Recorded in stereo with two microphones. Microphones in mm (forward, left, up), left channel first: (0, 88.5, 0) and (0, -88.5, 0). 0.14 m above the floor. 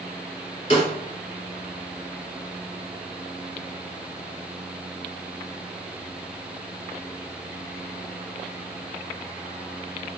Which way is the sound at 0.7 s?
35° left (ahead or behind).